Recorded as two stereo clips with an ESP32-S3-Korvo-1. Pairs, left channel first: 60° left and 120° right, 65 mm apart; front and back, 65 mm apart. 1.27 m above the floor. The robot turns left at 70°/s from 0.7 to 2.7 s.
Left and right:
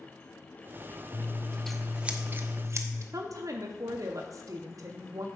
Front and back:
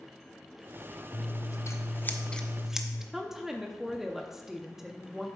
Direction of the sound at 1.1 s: 10° left.